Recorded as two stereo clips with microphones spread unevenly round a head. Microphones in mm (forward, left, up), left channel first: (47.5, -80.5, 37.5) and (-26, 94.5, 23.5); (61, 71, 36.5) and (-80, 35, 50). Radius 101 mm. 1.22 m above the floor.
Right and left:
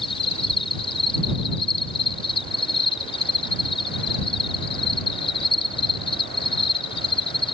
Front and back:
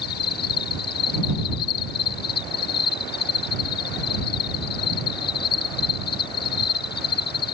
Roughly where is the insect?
Ahead.